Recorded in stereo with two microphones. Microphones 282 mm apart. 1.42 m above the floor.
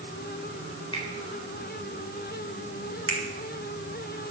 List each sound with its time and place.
0.9 s a finger snap: 20° left (ahead or behind), 4 m
3.1 s a finger snap: 45° right (ahead or behind), 2.5 m